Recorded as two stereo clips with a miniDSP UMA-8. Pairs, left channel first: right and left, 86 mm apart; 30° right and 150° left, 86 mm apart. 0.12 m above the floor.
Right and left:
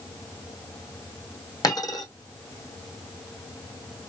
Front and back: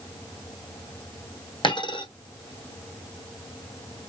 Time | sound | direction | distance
1.6 | a dropped coin | 45° right | 2 m